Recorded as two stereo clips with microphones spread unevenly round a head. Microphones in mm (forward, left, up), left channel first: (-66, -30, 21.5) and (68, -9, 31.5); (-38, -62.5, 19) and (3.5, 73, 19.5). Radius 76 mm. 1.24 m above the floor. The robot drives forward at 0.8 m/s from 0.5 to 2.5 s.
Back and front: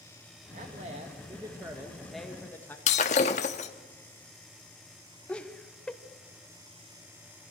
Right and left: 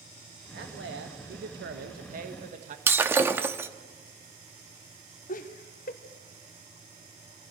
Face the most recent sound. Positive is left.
turn(degrees=-90)